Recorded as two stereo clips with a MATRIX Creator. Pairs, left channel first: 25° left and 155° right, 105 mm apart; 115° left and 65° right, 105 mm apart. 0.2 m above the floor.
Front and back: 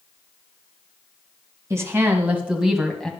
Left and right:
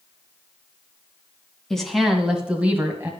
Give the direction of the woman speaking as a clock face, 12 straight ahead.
6 o'clock.